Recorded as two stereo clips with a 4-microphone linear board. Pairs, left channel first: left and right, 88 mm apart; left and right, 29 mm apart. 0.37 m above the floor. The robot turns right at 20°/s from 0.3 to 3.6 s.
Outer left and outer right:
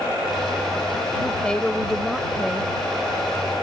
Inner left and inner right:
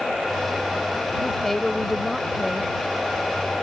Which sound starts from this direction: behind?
A woman speaking, at 1.2 s.